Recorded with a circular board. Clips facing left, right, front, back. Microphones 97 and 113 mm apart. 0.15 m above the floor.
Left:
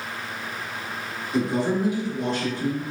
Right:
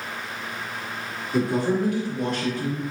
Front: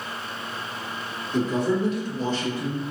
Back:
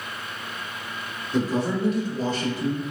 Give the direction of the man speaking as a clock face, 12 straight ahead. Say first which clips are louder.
Right 1 dB, front 1 dB; 6 o'clock.